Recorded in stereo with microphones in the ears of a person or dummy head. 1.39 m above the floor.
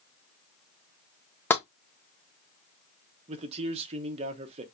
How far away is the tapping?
About 0.7 m.